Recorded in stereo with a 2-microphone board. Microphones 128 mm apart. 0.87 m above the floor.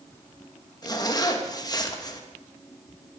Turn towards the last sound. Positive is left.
turn(degrees=30)  # may be behind; listen again after turning